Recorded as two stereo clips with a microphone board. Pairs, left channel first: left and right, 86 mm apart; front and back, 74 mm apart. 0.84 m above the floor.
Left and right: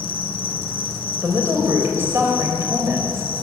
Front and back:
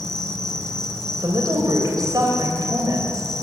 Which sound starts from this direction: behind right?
A woman speaking, at 1.2 s.